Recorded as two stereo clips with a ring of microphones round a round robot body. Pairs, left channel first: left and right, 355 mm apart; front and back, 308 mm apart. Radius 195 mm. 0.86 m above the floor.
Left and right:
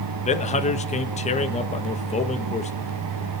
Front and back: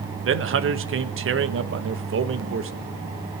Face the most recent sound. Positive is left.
turn(degrees=155)